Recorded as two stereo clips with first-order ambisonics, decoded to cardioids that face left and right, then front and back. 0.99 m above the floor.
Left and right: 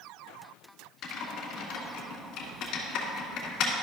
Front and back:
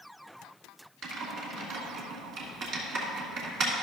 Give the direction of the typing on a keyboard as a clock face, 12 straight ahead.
8 o'clock.